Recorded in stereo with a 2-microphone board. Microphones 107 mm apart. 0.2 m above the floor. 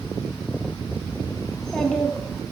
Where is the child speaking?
5° left (ahead or behind), 1.1 m.